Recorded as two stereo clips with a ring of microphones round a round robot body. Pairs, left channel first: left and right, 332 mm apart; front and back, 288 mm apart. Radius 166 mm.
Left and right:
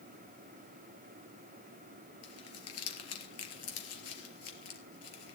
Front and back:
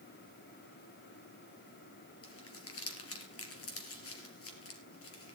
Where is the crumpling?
40° left, 3.5 m.